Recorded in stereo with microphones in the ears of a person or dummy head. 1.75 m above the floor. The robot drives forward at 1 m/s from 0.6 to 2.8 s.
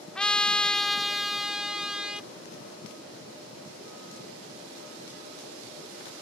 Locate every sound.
0.1 s a trumpet: 15° left (ahead or behind); by 2.3 s 5° left (ahead or behind)